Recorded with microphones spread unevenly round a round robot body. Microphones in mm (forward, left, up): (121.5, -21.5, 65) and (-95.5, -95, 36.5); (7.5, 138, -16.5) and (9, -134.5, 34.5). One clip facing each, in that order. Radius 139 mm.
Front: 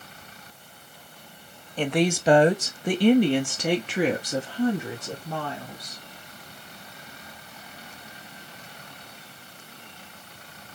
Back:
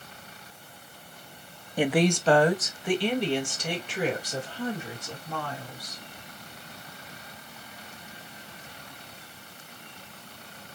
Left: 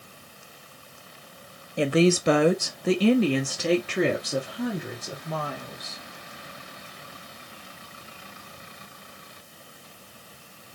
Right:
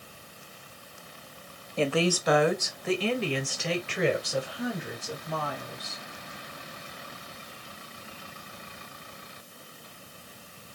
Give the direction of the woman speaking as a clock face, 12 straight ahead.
7 o'clock.